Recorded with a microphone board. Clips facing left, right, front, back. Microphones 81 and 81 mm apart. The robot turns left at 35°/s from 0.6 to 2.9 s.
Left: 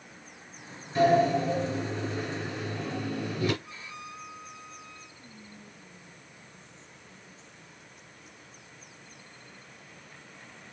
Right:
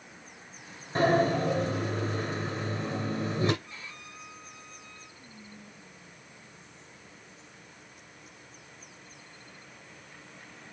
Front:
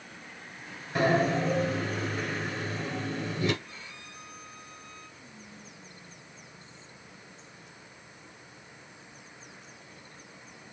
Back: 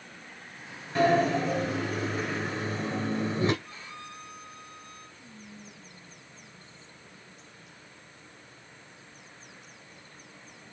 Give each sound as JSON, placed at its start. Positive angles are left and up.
{"t": 0.9, "sound": "a sliding door", "azimuth_deg": -75, "distance_m": 1.3}
{"t": 3.6, "sound": "a violin", "azimuth_deg": 160, "distance_m": 2.5}
{"t": 5.2, "sound": "whispering", "azimuth_deg": 120, "distance_m": 1.1}